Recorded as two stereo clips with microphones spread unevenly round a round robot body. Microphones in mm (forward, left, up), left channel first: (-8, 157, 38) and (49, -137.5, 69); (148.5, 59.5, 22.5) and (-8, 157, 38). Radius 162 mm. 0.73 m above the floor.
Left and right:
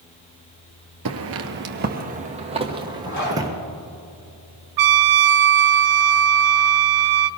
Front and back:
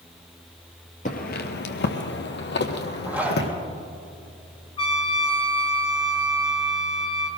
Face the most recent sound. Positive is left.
turn(degrees=-100)